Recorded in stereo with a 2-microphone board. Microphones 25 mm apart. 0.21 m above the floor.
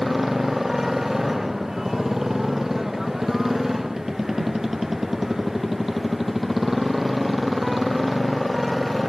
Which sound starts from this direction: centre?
A motorcycle, at 0.0 s.